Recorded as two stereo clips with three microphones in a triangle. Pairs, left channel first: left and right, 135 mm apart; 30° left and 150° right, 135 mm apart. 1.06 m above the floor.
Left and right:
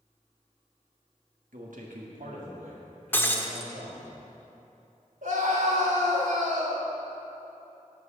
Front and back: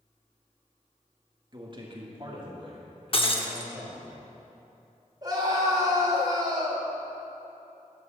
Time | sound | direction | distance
1.5 | a man speaking | 95° right | 1.4 m
3.1 | breaking glass | 25° left | 0.8 m
5.2 | a scream | 90° right | 3 m